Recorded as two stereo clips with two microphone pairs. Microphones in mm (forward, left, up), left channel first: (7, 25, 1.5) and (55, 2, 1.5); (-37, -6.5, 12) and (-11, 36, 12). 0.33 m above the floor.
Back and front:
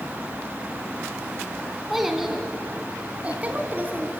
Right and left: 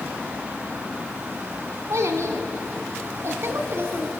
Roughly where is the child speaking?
Ahead left.